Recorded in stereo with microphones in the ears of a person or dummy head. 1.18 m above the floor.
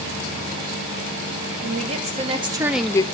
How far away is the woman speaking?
About 1.6 m.